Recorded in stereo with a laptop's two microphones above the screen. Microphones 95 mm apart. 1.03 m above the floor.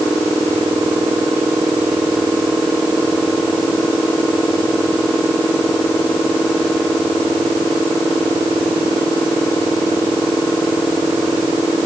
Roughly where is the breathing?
I don't hear breathing.